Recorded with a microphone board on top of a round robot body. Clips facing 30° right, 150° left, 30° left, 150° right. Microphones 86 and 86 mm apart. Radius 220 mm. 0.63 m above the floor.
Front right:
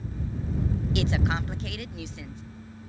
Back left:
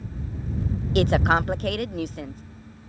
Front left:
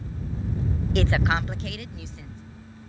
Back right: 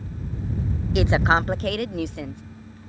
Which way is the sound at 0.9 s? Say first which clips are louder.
Back left 10 dB, back right 5 dB; 125° left.